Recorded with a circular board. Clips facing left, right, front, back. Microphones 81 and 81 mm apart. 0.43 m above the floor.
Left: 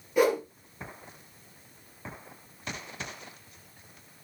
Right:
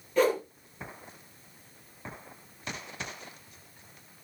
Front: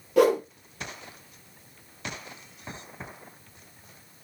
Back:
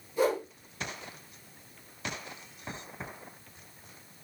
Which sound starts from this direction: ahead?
A whoosh, at 0.2 s.